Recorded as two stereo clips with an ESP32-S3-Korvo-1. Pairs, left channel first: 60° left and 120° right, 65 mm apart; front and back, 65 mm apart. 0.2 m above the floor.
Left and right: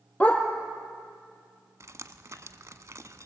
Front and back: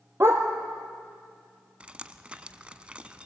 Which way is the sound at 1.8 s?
115° right.